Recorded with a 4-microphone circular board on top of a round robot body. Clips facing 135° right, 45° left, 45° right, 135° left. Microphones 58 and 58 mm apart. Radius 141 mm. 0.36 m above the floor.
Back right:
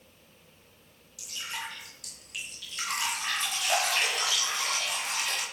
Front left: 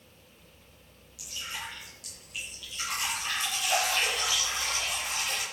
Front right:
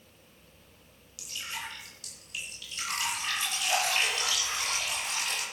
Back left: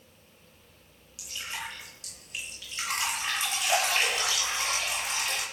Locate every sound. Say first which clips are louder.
1.2 s dripping: back right 1 dB, back left 1 dB; 165° right, 6 m